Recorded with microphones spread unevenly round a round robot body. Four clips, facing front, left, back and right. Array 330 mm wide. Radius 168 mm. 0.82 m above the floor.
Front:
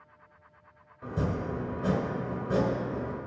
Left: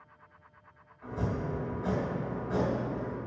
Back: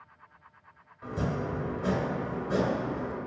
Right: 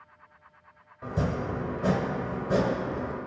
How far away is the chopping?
About 2.0 m.